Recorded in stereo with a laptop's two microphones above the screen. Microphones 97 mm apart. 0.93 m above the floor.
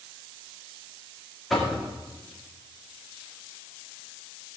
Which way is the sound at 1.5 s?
Centre (ahead or behind).